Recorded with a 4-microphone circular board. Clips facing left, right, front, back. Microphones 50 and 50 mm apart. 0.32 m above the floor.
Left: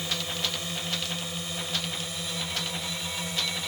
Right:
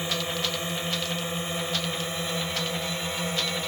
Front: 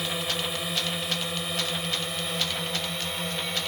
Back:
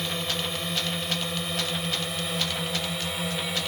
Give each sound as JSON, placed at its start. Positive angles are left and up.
{"t": 0.0, "sound": "a drone", "azimuth_deg": -80}